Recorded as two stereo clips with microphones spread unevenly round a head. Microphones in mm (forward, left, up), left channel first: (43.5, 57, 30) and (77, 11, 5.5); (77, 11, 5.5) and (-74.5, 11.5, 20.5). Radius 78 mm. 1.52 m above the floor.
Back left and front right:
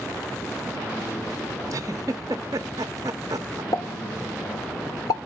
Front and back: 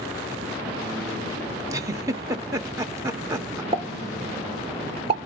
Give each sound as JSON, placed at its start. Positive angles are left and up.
{"t": 1.7, "sound": "a giggle", "azimuth_deg": -105, "distance_m": 0.8}
{"t": 3.7, "sound": "a pop", "azimuth_deg": 125, "distance_m": 1.6}